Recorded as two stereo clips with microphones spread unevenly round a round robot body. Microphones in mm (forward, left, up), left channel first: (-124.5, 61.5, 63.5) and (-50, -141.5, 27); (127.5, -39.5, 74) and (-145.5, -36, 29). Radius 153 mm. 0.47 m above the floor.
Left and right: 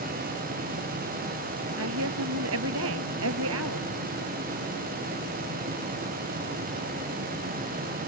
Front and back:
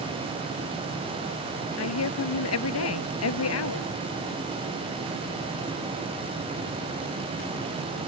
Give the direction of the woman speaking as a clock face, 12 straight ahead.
1 o'clock.